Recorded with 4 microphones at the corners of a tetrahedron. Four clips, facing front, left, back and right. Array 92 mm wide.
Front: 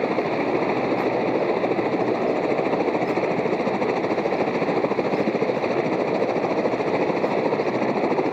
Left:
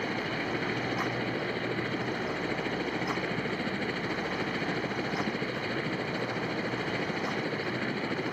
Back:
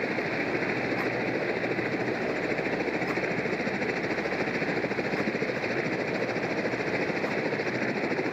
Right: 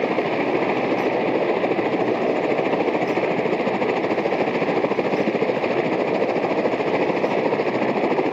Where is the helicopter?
60° right.